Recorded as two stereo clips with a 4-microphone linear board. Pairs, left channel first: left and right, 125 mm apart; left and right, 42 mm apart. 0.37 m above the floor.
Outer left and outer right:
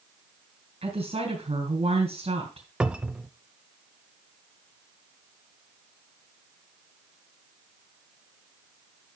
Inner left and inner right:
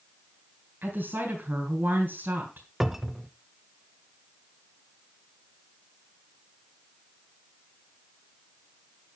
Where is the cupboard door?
10° right (ahead or behind), 0.6 m.